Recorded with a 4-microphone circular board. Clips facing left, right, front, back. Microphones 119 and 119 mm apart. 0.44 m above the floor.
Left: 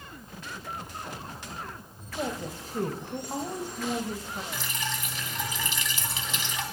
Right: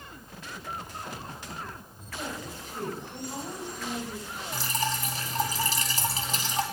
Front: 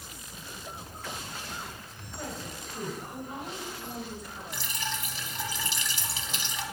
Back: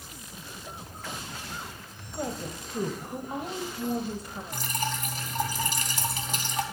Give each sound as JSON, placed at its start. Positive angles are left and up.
{"t": 2.1, "sound": "a woman speaking", "azimuth_deg": 130, "distance_m": 1.8}
{"t": 4.5, "sound": "dripping", "azimuth_deg": -140, "distance_m": 3.0}